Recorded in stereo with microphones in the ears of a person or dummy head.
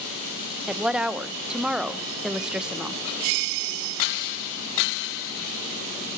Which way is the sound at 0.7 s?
5° right (ahead or behind).